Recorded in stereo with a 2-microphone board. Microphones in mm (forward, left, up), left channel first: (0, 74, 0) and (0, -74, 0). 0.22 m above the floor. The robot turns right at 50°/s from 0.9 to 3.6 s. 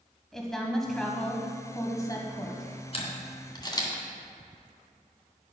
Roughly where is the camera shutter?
Left.